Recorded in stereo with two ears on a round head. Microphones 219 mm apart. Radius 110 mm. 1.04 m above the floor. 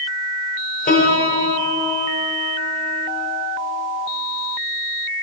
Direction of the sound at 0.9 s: 30° left (ahead or behind).